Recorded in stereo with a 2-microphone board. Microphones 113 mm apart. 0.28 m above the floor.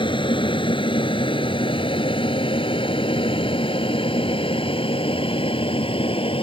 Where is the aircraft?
45° left (ahead or behind); by 6.4 s 50° left (ahead or behind).